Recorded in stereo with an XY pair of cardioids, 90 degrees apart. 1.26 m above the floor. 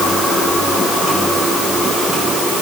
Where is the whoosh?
I don't hear a whoosh.